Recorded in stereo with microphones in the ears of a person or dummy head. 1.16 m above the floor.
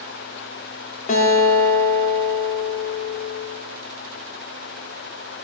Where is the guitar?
40° left (ahead or behind), 1.3 m.